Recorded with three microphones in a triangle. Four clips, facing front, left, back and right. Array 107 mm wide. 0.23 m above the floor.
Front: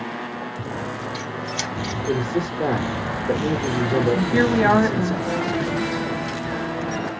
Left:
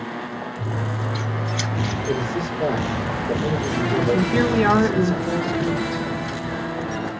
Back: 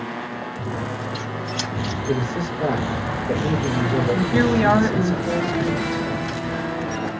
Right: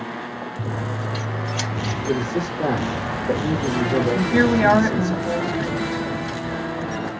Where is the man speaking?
50° right, 4.5 m.